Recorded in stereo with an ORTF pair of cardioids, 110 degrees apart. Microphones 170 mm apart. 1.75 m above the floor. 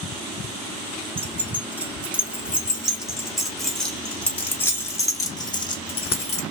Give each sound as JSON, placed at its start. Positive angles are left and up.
{"t": 1.2, "sound": "keys jangling", "azimuth_deg": -10, "distance_m": 3.5}